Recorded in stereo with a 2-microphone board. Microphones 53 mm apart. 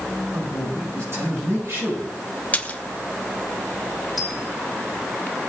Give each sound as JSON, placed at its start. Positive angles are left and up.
{"t": 0.3, "sound": "a man speaking", "side_deg": -55, "distance_m": 6.0}
{"t": 2.5, "sound": "a splash", "side_deg": 25, "distance_m": 0.6}
{"t": 4.2, "sound": "a dropped coin", "side_deg": -5, "distance_m": 1.8}